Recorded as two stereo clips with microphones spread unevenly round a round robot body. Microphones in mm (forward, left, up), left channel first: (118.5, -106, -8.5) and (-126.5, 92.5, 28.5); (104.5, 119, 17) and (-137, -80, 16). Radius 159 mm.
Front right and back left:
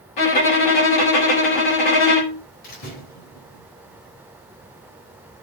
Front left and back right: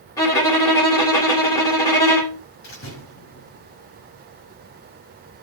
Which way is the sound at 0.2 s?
40° right.